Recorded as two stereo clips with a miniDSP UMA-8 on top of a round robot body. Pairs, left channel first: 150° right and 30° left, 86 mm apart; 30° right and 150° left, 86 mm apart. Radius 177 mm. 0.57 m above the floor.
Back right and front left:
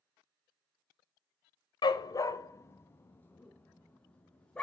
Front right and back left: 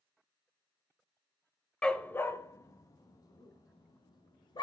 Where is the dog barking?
110° right, 0.8 m; by 4.6 s 70° right, 2.5 m.